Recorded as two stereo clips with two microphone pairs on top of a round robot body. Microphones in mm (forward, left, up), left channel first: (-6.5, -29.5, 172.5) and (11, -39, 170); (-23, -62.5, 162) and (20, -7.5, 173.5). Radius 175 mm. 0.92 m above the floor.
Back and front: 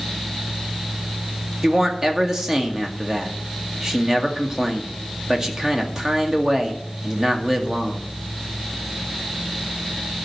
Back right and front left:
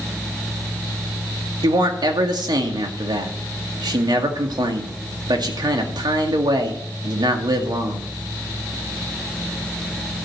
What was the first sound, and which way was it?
A man speaking, 30° left.